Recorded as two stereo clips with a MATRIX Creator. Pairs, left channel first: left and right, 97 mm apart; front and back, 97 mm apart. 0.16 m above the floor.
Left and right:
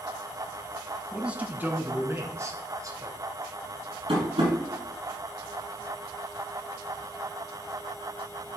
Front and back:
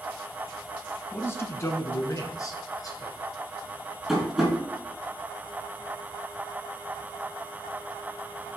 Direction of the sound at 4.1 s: 90° right.